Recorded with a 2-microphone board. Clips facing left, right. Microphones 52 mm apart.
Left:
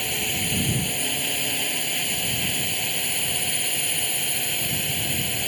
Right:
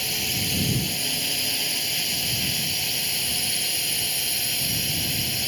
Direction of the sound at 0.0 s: 15° left (ahead or behind).